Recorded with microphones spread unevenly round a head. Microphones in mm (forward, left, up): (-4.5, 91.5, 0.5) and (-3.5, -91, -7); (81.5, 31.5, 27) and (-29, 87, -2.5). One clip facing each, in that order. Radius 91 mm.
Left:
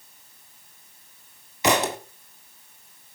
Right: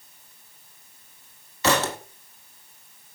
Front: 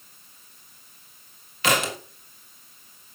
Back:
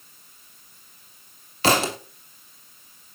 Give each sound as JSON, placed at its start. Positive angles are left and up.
{"t": 1.6, "sound": "a thud", "azimuth_deg": 125, "distance_m": 1.2}